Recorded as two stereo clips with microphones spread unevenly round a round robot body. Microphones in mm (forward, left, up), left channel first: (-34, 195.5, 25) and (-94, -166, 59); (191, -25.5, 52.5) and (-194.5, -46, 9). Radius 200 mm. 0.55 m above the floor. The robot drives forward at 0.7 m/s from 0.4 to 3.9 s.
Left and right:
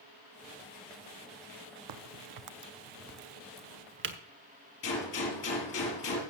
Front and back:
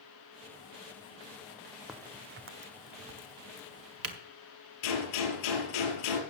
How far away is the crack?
About 0.7 m.